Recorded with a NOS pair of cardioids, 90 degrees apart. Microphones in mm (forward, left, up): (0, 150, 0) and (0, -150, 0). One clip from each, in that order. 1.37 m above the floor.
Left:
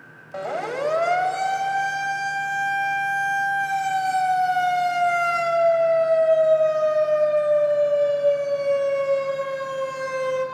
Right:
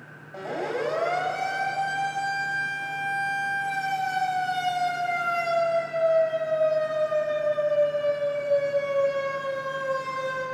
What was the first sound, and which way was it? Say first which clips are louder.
A siren: left 3 dB; 60° left.